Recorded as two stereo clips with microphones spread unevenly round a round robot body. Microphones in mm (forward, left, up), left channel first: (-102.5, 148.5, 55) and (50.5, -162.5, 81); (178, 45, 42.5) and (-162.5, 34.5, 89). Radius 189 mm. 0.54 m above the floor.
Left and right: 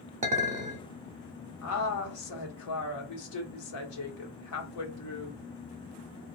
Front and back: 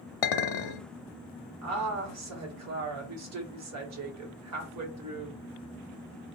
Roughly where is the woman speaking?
Behind left.